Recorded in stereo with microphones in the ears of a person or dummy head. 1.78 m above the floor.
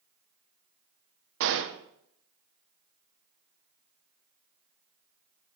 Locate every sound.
1.4 s a gunshot: 65° right (ahead or behind), 1.3 m